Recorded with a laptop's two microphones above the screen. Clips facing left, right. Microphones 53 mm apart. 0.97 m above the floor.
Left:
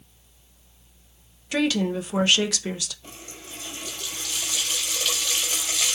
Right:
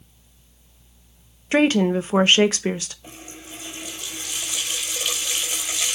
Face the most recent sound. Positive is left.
turn(degrees=-15)  # may be behind; listen again after turning